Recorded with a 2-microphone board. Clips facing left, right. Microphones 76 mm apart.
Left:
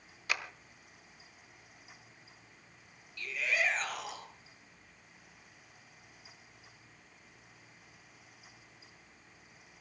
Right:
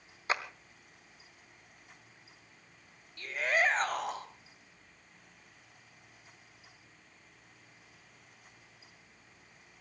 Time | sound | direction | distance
0.3 | a clap | 30° right (ahead or behind) | 1.4 m
3.2 | a shout | 40° right (ahead or behind) | 2.5 m